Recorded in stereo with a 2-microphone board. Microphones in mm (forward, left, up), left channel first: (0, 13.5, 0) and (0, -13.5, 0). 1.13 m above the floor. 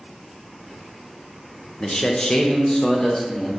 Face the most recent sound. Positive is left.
turn(degrees=25)  # may be behind; listen again after turning